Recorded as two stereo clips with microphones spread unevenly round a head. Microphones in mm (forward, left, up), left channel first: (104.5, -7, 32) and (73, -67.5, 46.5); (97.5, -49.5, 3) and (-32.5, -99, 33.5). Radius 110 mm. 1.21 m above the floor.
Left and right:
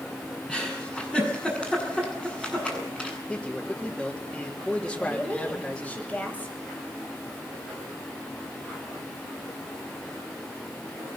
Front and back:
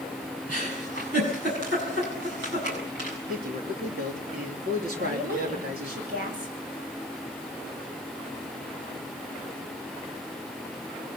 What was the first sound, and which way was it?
A giggle, 160° left.